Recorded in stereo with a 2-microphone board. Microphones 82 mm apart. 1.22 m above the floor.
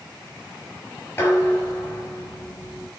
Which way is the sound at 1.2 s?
35° left (ahead or behind).